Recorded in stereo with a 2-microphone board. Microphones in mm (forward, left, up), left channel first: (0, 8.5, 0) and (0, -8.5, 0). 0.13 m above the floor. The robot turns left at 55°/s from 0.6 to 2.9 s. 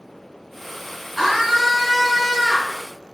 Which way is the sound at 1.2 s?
5° right (ahead or behind).